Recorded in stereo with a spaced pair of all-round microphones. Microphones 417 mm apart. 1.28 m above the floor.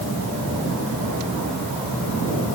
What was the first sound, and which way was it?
Only background noise.